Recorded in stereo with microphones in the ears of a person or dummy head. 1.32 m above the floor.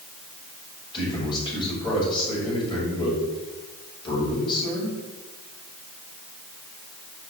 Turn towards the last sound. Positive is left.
turn(degrees=30)  # may be behind; listen again after turning